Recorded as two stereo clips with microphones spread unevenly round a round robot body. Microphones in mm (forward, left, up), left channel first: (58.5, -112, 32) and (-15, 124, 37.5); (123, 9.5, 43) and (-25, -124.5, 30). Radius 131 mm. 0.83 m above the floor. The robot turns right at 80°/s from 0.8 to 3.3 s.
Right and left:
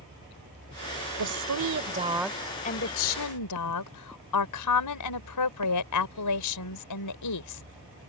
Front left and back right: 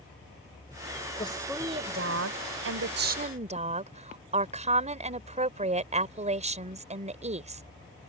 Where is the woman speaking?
110° left; by 7.6 s 85° right.